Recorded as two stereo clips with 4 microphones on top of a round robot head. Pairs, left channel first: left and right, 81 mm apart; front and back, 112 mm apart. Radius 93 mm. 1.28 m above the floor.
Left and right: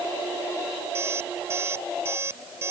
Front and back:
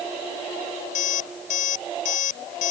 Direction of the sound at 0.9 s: 20° right.